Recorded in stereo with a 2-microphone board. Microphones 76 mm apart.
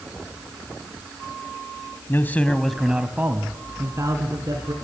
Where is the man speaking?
30° left (ahead or behind), 1.5 m; by 4.7 s 55° right (ahead or behind), 3 m.